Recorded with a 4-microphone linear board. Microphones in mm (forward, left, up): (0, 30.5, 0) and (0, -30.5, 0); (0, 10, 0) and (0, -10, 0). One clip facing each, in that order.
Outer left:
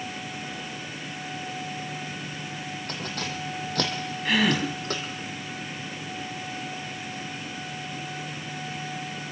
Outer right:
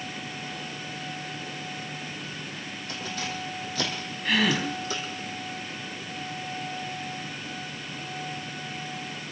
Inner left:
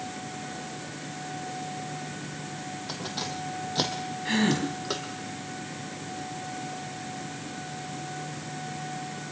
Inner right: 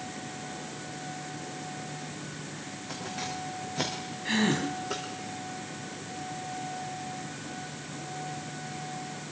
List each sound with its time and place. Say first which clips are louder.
2.9 s keys jangling: outer right 1 dB, inner left 1 dB; 55° left (ahead or behind), 3.5 m
4.2 s a gasp: outer left 1 dB, inner left 1 dB; 5° left (ahead or behind), 5 m